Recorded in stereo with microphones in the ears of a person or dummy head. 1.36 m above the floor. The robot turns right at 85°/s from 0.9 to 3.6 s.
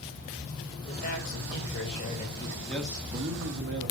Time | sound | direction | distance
0.8 | a man speaking | 35° left | 5.5 m
2.7 | a man speaking | 170° left | 2.5 m